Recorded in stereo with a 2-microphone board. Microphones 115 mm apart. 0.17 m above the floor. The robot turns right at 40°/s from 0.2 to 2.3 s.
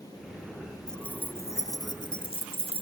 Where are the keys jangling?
5° left; by 2.8 s 65° left.